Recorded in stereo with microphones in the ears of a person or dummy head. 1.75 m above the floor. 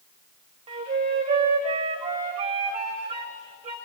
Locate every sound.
0.7 s a flute: 30° right (ahead or behind), 1.8 m